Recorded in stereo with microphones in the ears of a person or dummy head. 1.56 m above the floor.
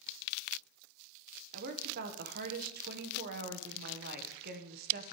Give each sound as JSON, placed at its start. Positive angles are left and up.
{"t": 1.5, "sound": "a woman speaking", "side_deg": -55, "distance_m": 1.0}